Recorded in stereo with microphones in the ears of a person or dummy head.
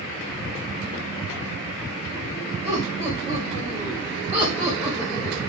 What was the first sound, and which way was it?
Laughter, 30° right (ahead or behind).